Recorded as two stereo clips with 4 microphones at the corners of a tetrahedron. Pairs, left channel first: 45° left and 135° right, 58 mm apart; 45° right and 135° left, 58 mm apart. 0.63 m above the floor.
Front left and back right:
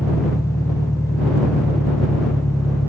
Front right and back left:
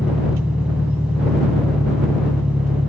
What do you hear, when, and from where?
0.0 s an engine running: 65° left